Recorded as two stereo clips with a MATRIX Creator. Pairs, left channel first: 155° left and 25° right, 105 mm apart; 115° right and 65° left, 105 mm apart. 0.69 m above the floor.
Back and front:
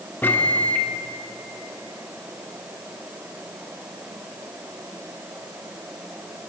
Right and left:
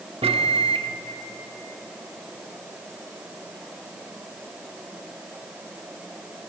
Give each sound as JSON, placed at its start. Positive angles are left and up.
{"t": 0.2, "sound": "a microwave", "azimuth_deg": 85, "distance_m": 1.1}